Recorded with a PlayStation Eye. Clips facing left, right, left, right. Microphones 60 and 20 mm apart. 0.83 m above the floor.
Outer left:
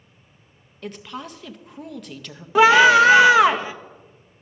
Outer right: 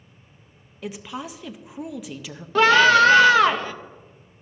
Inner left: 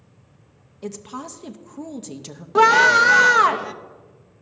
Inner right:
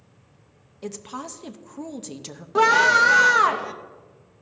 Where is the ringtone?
No ringtone in this recording.